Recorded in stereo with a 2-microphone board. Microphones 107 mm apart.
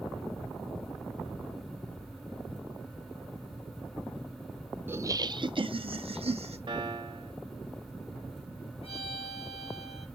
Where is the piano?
50° right (ahead or behind), 1.8 m.